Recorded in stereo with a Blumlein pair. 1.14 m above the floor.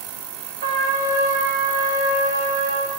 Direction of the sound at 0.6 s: 60° right.